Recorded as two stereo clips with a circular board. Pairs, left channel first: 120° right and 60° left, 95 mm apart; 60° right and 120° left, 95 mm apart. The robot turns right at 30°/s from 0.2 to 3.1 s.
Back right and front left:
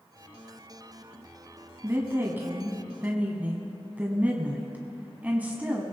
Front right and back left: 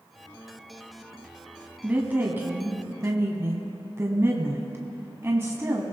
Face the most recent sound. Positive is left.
turn(degrees=110)